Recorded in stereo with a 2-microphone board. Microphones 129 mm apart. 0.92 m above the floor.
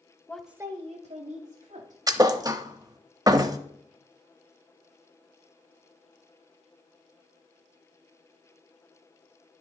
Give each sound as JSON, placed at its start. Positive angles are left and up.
{"t": 0.3, "sound": "a woman speaking", "side_deg": 15, "distance_m": 0.7}
{"t": 2.1, "sound": "a thud", "side_deg": -30, "distance_m": 0.6}